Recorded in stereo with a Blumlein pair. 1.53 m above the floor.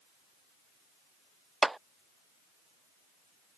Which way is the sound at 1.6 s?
5° right.